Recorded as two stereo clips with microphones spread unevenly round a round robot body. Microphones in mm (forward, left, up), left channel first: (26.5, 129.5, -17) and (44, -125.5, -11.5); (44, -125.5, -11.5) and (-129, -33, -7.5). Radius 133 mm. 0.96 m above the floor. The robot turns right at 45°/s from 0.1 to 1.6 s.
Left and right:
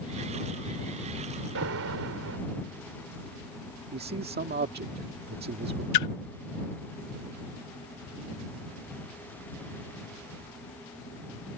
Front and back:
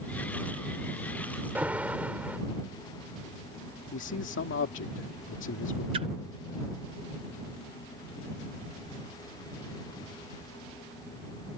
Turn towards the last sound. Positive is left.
turn(degrees=80)